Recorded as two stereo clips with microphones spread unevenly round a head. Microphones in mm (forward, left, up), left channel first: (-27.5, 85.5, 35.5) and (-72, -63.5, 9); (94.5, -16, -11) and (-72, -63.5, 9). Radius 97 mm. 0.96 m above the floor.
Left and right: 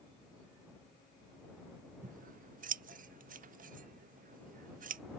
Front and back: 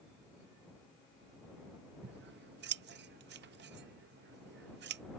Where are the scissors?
140° right.